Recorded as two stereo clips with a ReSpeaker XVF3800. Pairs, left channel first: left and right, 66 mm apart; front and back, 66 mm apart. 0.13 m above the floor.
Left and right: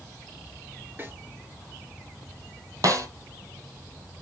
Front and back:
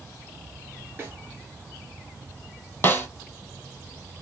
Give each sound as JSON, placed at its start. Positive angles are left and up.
{"t": 1.0, "sound": "a snare drum", "azimuth_deg": -135, "distance_m": 2.5}
{"t": 2.8, "sound": "a snare drum", "azimuth_deg": -60, "distance_m": 1.0}